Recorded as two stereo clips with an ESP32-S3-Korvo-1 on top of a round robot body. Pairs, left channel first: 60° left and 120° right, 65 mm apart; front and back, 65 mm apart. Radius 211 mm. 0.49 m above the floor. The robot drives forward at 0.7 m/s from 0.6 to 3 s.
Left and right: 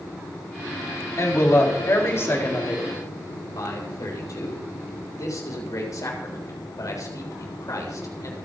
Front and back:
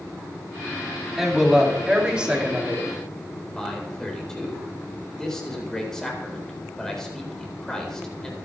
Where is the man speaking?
80° left, 4 m.